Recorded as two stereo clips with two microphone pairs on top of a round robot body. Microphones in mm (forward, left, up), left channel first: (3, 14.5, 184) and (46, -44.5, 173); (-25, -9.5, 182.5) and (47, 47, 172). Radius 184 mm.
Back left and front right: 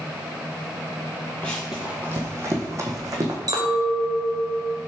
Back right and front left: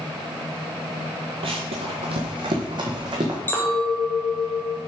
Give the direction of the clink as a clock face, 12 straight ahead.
2 o'clock.